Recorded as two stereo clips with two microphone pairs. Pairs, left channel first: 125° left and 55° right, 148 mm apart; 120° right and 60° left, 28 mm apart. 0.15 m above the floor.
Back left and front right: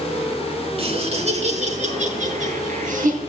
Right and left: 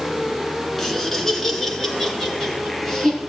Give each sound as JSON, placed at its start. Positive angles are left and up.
{"t": 0.8, "sound": "laughter", "azimuth_deg": -50, "distance_m": 2.0}